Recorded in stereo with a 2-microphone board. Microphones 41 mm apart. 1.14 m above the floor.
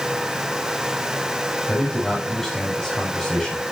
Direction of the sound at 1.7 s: 5° left (ahead or behind).